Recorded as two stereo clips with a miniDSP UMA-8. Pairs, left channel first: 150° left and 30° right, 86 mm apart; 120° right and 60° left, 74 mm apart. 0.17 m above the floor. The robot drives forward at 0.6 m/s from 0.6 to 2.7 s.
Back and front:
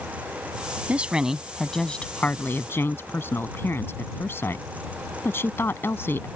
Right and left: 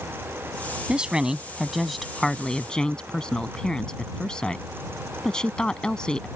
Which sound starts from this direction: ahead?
A woman speaking, at 0.9 s.